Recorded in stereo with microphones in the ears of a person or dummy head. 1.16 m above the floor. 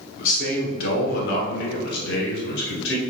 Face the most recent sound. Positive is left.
turn(degrees=70)  # may be behind; listen again after turning